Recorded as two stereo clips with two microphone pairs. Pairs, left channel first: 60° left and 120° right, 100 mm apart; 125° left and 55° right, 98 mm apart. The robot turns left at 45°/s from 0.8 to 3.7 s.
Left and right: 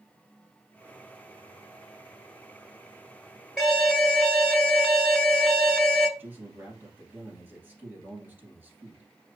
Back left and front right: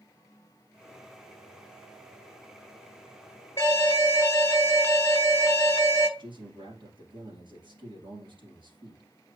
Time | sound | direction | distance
3.6 | an alarm | 150° left | 1.0 m
6.2 | a man speaking | 55° right | 2.5 m